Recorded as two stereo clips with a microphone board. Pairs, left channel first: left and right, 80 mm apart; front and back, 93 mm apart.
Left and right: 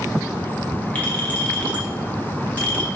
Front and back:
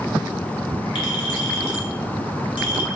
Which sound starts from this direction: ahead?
A clink, at 0.9 s.